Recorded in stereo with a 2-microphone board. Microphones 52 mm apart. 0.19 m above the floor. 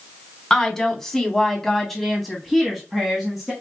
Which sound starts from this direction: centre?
A woman speaking, at 0.5 s.